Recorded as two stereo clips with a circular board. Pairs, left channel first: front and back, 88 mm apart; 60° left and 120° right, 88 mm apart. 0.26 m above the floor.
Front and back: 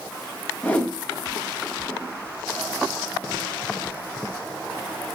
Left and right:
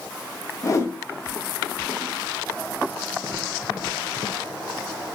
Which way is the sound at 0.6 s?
60° left.